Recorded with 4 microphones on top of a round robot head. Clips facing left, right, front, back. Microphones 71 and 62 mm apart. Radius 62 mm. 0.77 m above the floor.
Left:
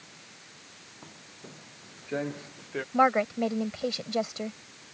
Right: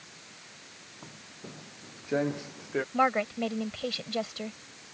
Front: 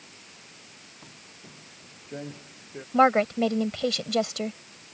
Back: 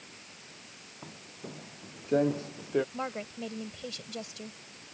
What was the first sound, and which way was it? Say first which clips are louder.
Footsteps: right 2 dB, back 7 dB; 170° right.